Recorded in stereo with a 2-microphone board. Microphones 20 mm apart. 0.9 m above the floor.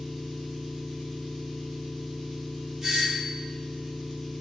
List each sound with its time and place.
0.0 s an engine running: 10° left (ahead or behind), 3.5 m
2.8 s a doorbell: 15° right (ahead or behind), 2.5 m